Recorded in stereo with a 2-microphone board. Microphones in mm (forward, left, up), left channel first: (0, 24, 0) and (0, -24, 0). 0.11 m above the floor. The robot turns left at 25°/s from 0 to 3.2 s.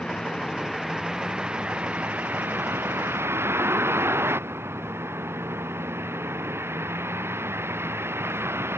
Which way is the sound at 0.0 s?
20° left.